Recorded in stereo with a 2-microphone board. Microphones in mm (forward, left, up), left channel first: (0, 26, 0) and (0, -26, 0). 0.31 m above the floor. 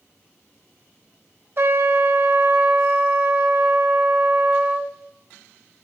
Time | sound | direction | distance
1.6 | a trumpet | 55° right (ahead or behind) | 0.9 m